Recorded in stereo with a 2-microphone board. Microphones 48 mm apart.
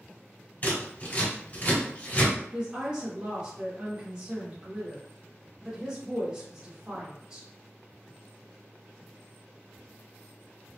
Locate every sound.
0.6 s scissors: 35° left (ahead or behind), 1.7 m
2.5 s a woman speaking: 20° right (ahead or behind), 0.7 m